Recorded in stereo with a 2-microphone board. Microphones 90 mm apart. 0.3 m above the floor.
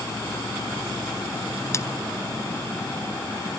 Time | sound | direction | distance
1.7 | a splash | 30° left (ahead or behind) | ?